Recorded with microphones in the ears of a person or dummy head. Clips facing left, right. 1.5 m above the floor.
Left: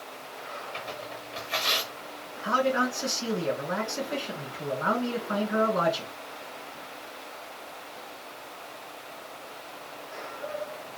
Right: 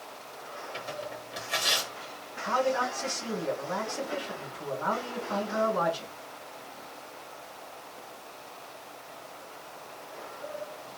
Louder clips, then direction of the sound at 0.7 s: Right 4 dB; 5° right (ahead or behind).